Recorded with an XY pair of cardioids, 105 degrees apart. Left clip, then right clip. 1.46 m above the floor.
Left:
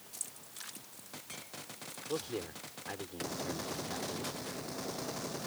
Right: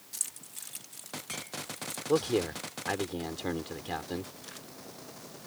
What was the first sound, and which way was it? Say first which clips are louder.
Keys jangling: right 7 dB; 55° right.